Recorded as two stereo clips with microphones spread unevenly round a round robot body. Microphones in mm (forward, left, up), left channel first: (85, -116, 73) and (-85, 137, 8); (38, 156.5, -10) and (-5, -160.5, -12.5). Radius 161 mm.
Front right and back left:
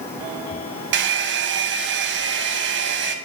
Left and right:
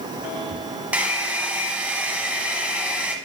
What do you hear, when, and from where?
0.9 s a hair dryer: 175° left, 0.7 m